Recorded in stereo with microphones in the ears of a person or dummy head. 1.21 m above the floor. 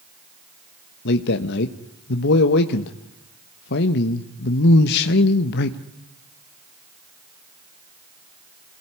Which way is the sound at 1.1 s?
60° left (ahead or behind).